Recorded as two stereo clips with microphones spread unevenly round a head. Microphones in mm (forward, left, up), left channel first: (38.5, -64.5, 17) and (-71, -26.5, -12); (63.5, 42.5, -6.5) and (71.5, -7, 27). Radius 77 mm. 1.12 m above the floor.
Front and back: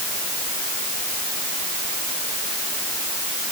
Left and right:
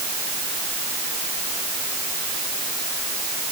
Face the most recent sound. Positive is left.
No sound to turn to.